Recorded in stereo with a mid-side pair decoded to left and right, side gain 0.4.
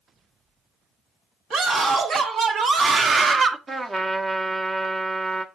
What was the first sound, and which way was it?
A scream, 65° right.